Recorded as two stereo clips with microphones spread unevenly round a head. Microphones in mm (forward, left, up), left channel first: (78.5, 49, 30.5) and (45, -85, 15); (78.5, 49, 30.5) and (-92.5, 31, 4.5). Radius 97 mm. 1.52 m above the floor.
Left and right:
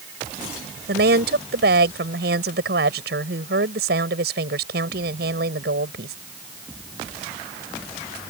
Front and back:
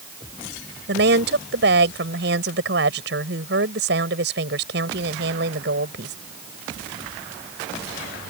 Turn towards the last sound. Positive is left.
turn(degrees=-135)